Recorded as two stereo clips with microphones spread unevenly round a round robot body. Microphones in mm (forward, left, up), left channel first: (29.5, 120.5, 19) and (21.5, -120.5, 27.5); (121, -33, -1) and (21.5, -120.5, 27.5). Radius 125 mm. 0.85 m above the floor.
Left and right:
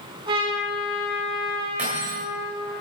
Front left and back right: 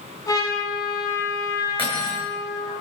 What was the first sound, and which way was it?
A trumpet, 25° right.